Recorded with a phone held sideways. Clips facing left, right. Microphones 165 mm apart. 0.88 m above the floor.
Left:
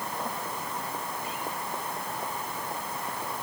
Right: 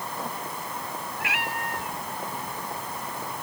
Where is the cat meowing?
85° right; by 3.4 s 80° right.